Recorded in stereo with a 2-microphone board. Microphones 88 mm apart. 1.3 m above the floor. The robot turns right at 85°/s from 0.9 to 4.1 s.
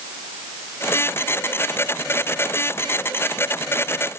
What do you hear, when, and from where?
Only background noise.